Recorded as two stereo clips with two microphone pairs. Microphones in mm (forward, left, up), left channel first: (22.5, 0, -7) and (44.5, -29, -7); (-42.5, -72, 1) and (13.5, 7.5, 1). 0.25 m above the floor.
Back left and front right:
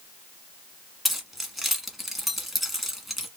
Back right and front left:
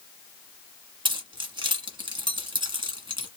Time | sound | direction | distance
1.1 | keys jangling | 30° left | 1.5 m